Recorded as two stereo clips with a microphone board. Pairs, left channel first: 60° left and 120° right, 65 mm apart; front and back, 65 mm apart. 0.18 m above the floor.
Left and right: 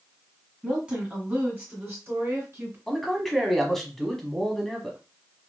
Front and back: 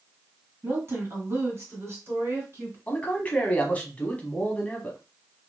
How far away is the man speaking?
About 1.0 m.